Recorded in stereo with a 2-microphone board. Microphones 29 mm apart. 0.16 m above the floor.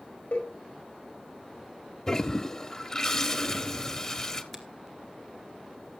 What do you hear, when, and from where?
0.3 s a cowbell: 65° left (ahead or behind), 5.5 m
2.1 s a toilet flushing: 20° left (ahead or behind), 1.1 m
4.5 s a finger snap: 15° left (ahead or behind), 2 m